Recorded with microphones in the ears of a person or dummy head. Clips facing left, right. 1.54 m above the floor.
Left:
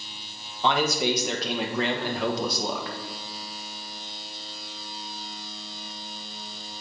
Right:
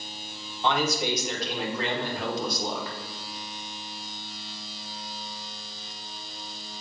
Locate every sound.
0.6 s a man speaking: 60° left (ahead or behind), 1.3 m